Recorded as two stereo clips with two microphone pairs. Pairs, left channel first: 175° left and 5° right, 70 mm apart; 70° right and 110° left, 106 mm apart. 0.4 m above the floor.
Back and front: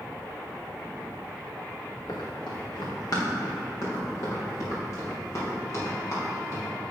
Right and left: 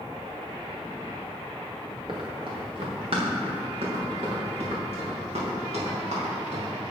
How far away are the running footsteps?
About 3 m.